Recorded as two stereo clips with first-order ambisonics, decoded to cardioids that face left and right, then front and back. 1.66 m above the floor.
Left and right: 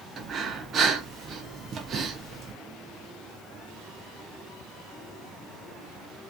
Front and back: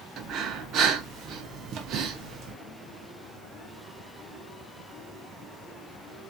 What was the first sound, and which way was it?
Breathing, 145° right.